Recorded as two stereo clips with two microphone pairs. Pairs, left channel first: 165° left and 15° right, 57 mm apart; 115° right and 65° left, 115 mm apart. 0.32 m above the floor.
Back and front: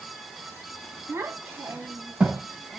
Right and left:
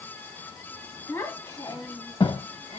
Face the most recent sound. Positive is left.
turn(degrees=-105)